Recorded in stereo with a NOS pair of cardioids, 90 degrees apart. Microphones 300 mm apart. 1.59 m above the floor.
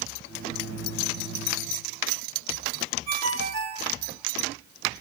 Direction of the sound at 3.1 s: 65° right.